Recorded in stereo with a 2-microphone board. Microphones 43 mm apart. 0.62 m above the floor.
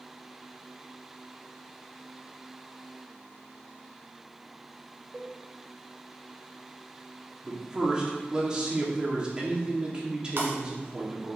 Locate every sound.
5.1 s a cowbell: 20° right (ahead or behind), 1.9 m
7.4 s a man speaking: 20° right (ahead or behind), 1.6 m
10.4 s breaking glass: 55° right (ahead or behind), 1.7 m